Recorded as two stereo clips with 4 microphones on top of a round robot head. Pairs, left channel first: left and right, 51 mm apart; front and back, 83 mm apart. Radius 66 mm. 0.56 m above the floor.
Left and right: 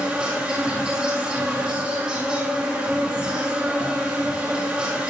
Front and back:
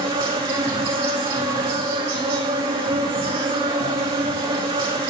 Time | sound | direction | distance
0.0 | an insect | 170° right | 4.5 m